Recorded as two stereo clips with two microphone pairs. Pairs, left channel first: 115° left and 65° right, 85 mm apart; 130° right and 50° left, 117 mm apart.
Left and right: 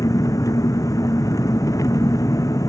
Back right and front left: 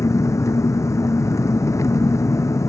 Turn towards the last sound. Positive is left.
turn(degrees=165)